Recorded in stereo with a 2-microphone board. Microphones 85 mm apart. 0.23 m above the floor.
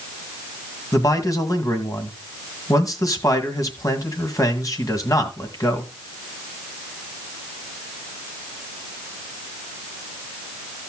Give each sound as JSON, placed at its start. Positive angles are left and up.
{"t": 0.9, "sound": "a man speaking", "side_deg": 40, "distance_m": 1.9}